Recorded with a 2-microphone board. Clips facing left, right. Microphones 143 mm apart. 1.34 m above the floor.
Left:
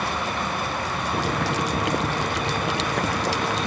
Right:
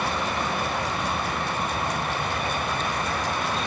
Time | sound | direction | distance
1.1 | boiling | 90° left | ?